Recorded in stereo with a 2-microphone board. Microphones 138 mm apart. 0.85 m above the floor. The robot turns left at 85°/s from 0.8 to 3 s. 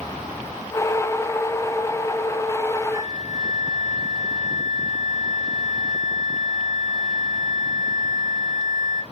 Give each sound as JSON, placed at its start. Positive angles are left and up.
{"t": 2.9, "sound": "a flute", "side_deg": -40, "distance_m": 3.0}